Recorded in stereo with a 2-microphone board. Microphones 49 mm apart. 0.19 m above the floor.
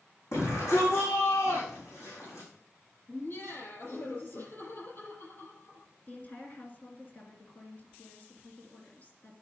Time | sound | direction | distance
0.3 | a shout | 80° left | 7.5 m
3.1 | laughter | 50° left (ahead or behind) | 7 m
6.1 | a woman speaking | 35° left (ahead or behind) | 2.5 m